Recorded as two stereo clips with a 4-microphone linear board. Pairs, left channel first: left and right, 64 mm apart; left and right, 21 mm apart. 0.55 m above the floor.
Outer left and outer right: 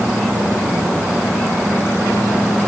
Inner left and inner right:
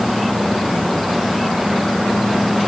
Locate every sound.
Only background noise.